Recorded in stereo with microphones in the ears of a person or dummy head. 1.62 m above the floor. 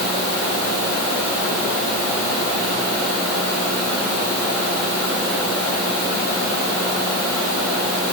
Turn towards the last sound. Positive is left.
No sound to turn to.